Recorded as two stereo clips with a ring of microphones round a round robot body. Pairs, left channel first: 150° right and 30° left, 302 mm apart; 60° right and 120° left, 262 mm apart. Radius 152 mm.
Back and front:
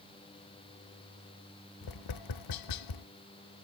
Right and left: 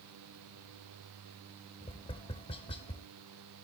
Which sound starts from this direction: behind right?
Tapping, at 1.8 s.